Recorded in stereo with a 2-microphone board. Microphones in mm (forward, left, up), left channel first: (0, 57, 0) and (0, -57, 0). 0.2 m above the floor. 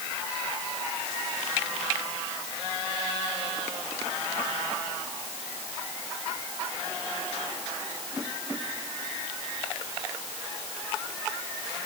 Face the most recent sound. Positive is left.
No sound to turn to.